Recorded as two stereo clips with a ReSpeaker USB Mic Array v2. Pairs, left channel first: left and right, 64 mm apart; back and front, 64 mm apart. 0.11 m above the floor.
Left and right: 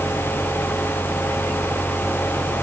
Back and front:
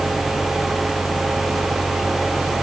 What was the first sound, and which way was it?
Only background noise.